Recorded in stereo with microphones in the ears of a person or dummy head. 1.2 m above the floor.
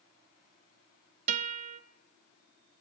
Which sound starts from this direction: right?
A guitar, at 1.3 s.